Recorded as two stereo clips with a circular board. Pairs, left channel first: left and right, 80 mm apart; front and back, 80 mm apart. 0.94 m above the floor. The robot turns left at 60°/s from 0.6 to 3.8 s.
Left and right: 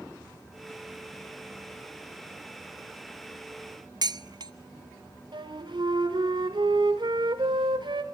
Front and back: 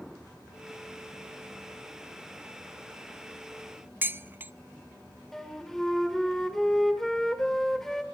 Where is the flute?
85° right, 2 m.